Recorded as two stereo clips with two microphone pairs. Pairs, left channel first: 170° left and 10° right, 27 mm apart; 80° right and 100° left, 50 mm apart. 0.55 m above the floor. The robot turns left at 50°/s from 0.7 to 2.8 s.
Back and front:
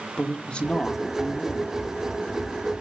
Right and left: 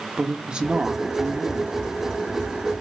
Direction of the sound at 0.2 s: 160° left.